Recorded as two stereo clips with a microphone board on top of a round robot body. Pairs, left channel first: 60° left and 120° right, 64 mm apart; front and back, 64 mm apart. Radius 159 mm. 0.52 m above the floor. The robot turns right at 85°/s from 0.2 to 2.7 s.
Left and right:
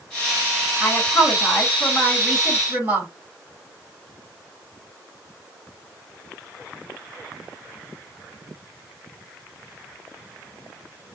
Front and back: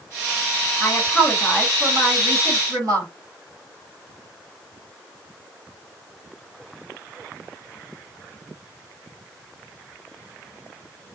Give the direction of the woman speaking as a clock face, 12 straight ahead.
11 o'clock.